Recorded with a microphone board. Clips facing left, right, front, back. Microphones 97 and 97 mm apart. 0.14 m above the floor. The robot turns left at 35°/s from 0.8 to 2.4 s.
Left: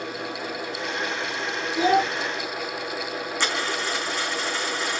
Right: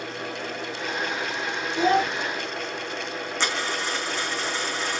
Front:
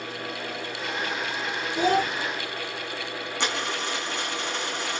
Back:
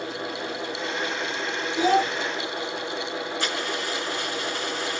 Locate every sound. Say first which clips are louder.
1.8 s a child speaking: left 1 dB, back 2 dB; 10° left, 1.2 m; by 2.1 s 5° right, 1.2 m
3.4 s a dropped coin: even, even; 10° left, 5 m